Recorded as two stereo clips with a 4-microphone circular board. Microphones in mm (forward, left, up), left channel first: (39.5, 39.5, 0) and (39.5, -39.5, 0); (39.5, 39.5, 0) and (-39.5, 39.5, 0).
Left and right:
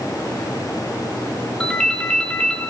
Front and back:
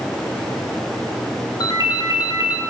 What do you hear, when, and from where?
1.6 s a ringtone: 5° left, 1.2 m